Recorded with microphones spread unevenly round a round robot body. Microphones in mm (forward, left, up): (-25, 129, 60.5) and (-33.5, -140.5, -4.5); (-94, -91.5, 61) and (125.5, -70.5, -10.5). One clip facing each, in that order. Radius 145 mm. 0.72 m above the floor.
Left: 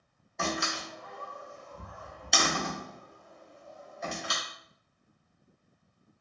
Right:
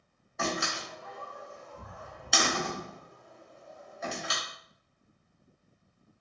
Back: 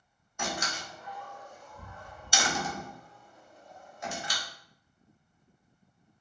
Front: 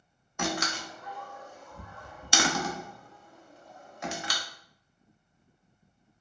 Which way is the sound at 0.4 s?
5° right.